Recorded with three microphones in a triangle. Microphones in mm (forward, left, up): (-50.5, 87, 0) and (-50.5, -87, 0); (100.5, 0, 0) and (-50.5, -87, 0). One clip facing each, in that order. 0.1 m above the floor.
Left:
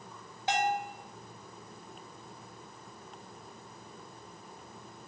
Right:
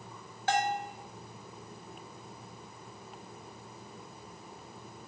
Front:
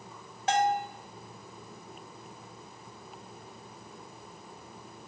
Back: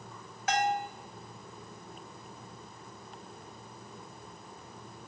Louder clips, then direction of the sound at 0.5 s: Even, front 3 dB; 40° left.